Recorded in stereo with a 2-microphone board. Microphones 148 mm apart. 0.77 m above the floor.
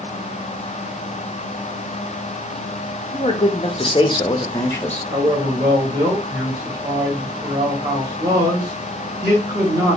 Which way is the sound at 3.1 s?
40° left (ahead or behind).